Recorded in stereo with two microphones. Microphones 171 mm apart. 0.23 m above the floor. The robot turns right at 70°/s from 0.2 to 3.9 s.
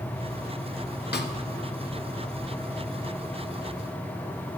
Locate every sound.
1.1 s a snare drum: 75° left (ahead or behind), 0.6 m; by 1.3 s 90° left, 0.6 m